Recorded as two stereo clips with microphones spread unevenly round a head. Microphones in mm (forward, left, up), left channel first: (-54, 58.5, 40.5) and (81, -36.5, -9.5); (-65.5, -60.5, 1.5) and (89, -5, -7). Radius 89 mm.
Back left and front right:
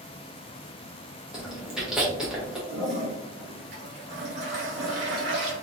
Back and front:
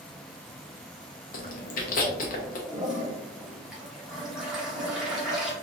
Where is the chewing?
120° right, 0.8 m.